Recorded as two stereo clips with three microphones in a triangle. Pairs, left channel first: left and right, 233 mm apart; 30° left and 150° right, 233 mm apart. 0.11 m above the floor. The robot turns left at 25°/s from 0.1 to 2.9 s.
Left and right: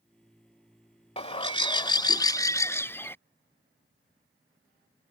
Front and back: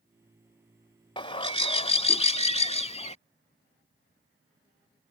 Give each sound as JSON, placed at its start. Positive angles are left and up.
{"t": 1.2, "sound": "a bird", "azimuth_deg": 65}